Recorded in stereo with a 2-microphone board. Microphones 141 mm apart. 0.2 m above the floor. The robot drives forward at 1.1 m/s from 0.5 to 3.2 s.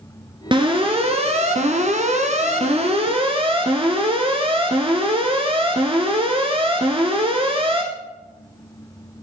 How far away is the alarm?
About 2.5 m.